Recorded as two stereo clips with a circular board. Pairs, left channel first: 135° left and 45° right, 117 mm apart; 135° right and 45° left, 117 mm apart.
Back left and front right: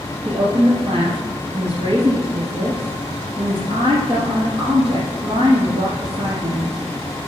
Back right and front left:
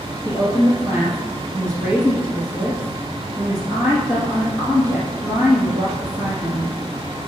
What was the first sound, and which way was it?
A woman speaking, 25° right.